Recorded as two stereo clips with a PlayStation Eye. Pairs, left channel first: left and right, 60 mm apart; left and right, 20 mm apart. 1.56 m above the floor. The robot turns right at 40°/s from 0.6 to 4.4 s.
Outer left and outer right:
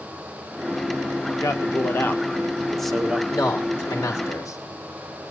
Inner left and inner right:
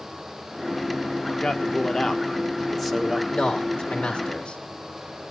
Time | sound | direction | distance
1.4 | a man speaking | 120° left | 1.6 m
3.3 | a man speaking | 60° left | 3 m